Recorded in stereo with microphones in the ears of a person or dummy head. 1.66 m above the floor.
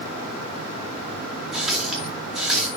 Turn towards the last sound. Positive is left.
turn(degrees=5)  # may be behind; listen again after turning